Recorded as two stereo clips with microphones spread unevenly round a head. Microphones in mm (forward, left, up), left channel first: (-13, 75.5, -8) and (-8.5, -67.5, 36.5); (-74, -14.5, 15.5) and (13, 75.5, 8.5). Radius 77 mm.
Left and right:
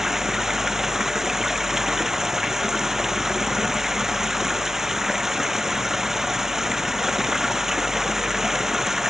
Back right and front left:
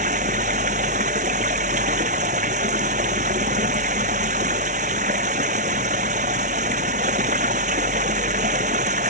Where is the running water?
Straight ahead.